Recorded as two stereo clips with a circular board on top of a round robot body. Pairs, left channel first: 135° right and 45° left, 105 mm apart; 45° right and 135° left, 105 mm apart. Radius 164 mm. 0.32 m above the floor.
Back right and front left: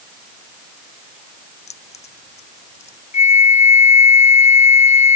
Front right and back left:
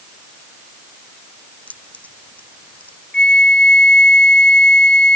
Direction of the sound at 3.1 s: 125° right.